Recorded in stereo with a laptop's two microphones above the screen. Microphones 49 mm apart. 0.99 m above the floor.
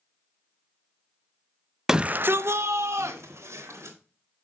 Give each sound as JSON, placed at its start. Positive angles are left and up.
{"t": 1.9, "sound": "a shout", "side_deg": -10, "distance_m": 0.5}